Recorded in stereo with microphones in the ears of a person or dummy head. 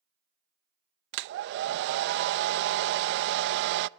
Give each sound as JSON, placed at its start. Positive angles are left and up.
{"t": 1.1, "sound": "a hair dryer", "side_deg": -70, "distance_m": 0.5}